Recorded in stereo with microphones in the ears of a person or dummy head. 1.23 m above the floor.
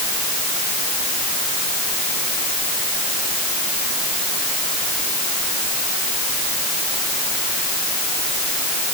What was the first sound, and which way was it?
Only background noise.